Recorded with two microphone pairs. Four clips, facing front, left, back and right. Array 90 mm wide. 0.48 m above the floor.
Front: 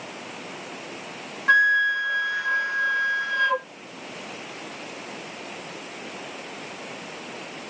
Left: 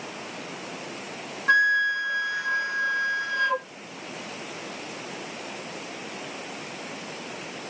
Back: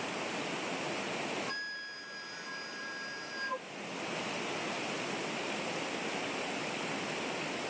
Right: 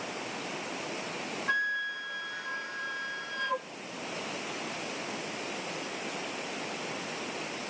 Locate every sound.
1.5 s a flute: 25° left